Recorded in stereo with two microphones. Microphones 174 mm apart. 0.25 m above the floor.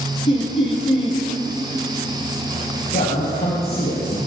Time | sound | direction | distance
0.3 | laughter | 35° left (ahead or behind) | 1.8 m
2.9 | a man speaking | 60° left (ahead or behind) | 4.5 m